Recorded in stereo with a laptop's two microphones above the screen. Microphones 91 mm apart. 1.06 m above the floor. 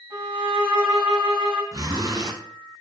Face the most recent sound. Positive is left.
turn(degrees=-45)  # may be behind; listen again after turning